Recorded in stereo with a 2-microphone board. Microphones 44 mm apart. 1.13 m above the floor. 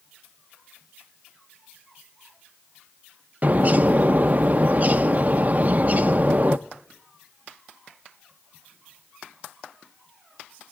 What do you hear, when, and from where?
3.4 s a bird: 35° right (ahead or behind), 0.6 m